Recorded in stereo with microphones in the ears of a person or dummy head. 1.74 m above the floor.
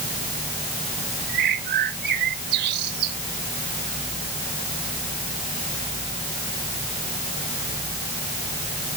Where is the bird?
60° right (ahead or behind).